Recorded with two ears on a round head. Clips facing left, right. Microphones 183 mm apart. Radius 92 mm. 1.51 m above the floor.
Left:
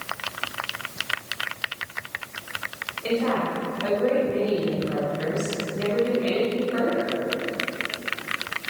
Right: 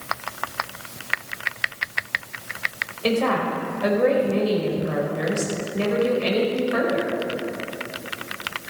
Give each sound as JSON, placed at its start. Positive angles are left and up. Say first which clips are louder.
{"t": 3.0, "sound": "a woman speaking", "louder": "right 2 dB", "side_deg": -65, "distance_m": 5.5}